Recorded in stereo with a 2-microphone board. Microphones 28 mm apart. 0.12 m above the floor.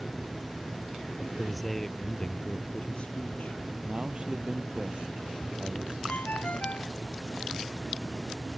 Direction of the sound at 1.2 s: 5° right (ahead or behind).